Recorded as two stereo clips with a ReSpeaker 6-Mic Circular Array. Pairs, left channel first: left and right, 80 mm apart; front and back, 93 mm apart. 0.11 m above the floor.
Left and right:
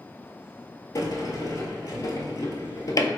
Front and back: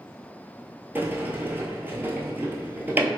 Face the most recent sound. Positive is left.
turn(degrees=115)